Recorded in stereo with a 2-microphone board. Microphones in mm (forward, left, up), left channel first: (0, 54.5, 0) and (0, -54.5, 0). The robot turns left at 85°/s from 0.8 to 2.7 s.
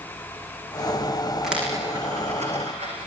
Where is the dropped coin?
Centre (ahead or behind), 10 m; by 3.0 s 70° right (ahead or behind), 10 m.